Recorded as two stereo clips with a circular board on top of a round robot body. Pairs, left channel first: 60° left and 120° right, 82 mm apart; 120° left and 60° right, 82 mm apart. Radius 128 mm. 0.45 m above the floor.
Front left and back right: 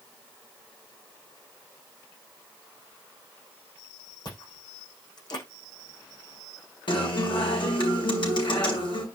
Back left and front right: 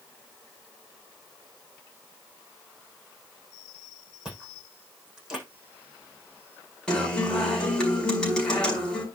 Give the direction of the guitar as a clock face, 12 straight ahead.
11 o'clock.